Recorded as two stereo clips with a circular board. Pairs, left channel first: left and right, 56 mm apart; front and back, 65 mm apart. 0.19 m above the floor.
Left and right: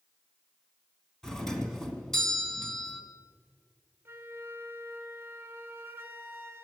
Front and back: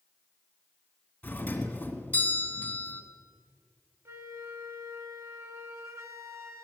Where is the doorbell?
20° left, 1.7 m.